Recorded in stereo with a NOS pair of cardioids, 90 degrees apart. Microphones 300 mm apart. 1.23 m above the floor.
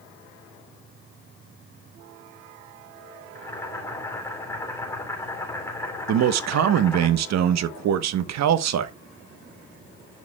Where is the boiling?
10° left, 3 m.